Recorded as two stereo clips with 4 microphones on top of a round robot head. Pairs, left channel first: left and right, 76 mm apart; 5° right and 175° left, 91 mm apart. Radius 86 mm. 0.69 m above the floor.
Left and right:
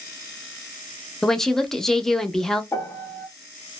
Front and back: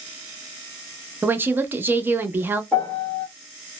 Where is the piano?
55° left, 1.3 m.